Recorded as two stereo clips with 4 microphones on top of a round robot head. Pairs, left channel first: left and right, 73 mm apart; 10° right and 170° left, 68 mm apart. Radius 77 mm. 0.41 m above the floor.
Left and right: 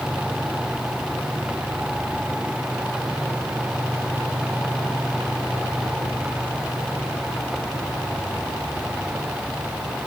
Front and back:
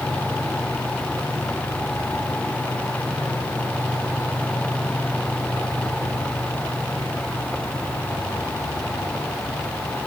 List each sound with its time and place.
Only background noise.